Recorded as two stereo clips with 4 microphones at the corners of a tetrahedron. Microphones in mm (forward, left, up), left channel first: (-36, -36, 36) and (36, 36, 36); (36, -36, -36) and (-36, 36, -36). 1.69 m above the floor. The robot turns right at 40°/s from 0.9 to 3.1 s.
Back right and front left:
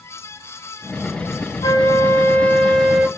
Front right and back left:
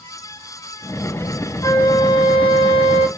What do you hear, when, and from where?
1.6 s a flute: 95° right, 0.7 m; by 3.1 s 35° right, 0.7 m